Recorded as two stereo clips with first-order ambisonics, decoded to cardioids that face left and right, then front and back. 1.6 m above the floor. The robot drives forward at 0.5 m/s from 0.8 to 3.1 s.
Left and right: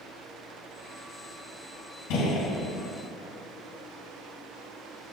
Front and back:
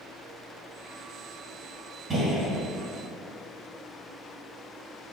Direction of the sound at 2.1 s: 115° left.